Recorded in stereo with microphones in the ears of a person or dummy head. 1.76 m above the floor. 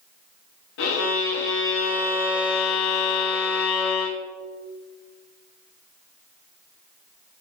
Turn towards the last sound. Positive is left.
turn(degrees=65)  # may be behind; listen again after turning